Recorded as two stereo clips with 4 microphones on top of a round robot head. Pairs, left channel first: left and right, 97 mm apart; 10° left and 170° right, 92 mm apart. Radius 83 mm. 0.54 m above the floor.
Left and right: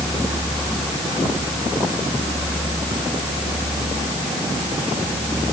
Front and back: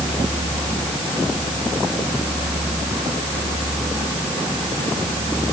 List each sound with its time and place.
Only background noise.